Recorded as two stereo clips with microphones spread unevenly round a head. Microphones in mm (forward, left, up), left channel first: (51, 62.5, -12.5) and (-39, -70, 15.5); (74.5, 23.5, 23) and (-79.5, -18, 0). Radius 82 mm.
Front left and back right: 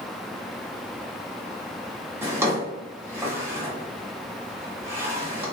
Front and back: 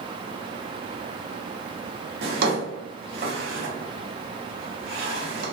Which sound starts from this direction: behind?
A drawer, at 2.2 s.